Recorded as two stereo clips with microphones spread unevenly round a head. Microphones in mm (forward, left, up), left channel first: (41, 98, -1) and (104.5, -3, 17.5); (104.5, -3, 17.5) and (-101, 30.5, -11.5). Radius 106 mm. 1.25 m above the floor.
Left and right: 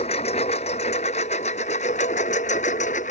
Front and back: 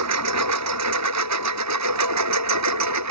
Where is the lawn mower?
175° right; by 3.1 s straight behind.